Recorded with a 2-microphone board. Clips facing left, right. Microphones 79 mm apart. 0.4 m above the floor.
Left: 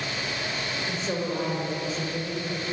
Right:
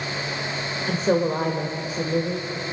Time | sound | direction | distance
0.9 | a woman speaking | 45° right (ahead or behind) | 1.8 m